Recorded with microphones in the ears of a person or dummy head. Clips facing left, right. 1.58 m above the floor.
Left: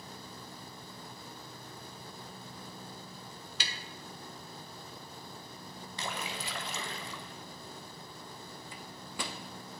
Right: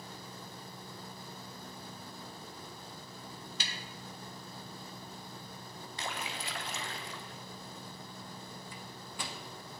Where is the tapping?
55° left (ahead or behind), 0.8 m.